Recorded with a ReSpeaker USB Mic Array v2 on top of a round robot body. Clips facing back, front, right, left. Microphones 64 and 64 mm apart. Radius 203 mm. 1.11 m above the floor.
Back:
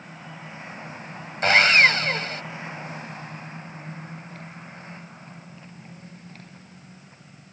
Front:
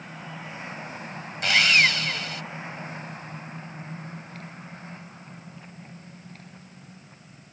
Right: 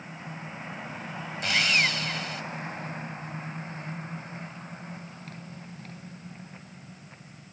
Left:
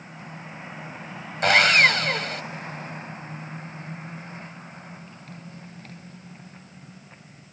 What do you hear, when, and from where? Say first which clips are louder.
1.4 s sawing: back 4 dB, left 9 dB; 125° left